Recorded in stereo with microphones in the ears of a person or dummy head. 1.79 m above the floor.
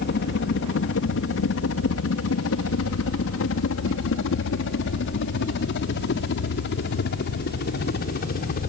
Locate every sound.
0.0 s a helicopter: 55° left (ahead or behind)